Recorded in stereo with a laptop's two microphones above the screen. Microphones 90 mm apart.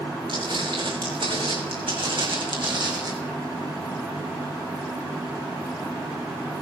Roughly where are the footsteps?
Right.